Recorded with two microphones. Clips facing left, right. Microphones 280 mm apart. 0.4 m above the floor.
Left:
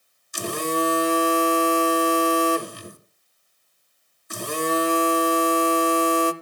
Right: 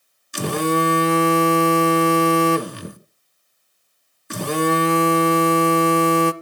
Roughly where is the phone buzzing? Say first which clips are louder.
Right 5 dB; right.